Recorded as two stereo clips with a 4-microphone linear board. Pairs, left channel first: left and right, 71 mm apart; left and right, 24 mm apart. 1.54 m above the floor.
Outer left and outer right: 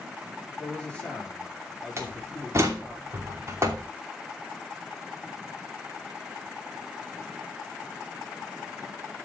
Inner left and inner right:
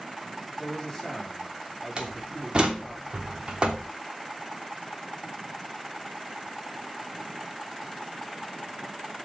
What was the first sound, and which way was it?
A man speaking, 15° left (ahead or behind).